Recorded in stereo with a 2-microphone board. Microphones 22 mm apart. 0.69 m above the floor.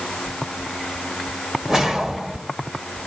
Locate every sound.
1.7 s a whoosh: 20° right (ahead or behind), 1.7 m